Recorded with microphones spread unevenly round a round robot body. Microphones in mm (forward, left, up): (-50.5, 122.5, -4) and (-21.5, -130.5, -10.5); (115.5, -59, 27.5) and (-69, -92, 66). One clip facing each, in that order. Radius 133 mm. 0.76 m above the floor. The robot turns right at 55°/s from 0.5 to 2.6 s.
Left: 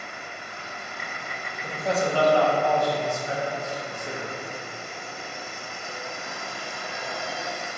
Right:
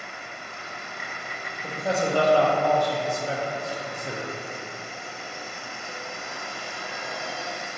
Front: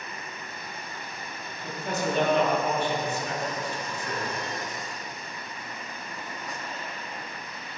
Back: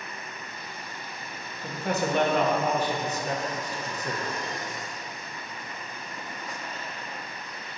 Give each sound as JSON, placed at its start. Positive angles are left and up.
{"t": 1.6, "sound": "a man speaking", "azimuth_deg": -170, "distance_m": 0.9}